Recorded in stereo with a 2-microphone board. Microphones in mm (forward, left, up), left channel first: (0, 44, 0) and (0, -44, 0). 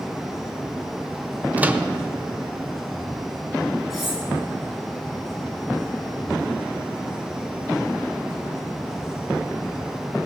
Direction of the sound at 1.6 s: 20° right (ahead or behind).